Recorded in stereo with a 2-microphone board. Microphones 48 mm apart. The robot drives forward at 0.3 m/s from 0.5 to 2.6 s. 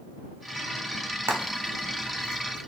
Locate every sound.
1.3 s frying: 80° right, 0.8 m; by 2.6 s 55° right (ahead or behind), 0.9 m